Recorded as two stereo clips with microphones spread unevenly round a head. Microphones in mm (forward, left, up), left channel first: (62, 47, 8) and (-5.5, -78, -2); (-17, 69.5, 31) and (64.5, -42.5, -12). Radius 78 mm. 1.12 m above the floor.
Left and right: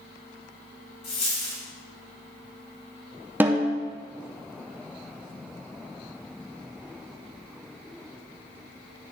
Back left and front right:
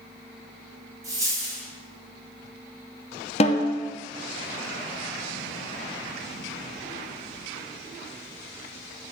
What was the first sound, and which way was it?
A dropped coin, 15° left.